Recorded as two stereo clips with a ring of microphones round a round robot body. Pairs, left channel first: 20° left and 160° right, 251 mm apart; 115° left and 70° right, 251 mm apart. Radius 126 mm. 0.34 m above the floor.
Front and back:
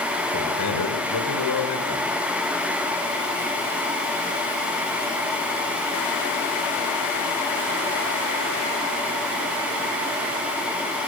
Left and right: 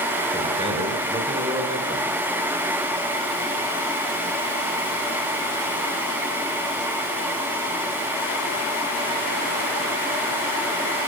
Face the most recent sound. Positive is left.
turn(degrees=5)